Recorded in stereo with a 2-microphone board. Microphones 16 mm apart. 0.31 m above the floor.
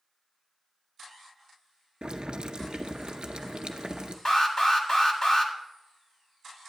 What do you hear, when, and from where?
2.0 s boiling: 75° right (ahead or behind), 0.7 m
4.2 s an alarm: 45° left (ahead or behind), 1.5 m